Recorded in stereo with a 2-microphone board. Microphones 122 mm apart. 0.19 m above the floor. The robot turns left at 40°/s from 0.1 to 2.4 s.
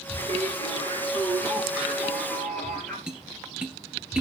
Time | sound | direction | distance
0.2 | singing | 100° right | 4 m
3.1 | tapping | 5° right (ahead or behind) | 2 m